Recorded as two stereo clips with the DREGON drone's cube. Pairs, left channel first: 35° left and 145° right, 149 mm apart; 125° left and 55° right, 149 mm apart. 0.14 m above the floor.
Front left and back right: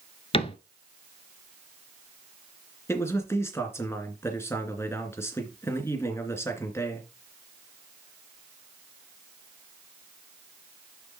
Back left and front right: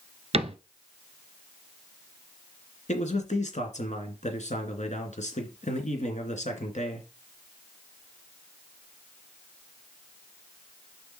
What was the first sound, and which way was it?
A cupboard door, 15° right.